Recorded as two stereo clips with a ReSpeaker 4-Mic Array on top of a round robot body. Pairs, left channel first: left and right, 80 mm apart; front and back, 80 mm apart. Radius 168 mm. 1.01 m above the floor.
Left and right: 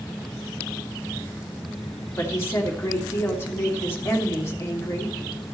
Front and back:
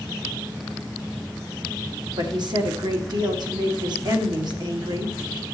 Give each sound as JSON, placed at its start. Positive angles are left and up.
{"t": 2.2, "sound": "a woman speaking", "azimuth_deg": 150, "distance_m": 2.0}